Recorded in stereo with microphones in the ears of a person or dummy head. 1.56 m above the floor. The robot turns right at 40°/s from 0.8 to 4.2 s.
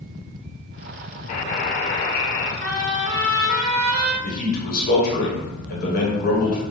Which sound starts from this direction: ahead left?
A buzzer, at 1.3 s.